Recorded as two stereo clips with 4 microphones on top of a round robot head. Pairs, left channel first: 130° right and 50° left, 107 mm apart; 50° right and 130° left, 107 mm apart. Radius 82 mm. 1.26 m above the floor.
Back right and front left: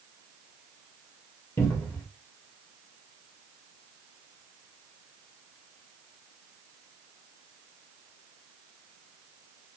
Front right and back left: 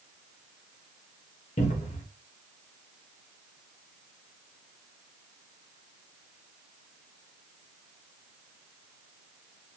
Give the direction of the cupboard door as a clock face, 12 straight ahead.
2 o'clock.